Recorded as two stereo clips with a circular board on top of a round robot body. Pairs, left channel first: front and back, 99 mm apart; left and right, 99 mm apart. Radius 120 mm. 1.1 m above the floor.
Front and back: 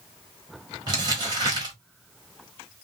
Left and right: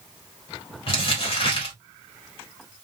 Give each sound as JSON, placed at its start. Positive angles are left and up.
{"t": 0.9, "sound": "crumpling", "azimuth_deg": 130, "distance_m": 1.1}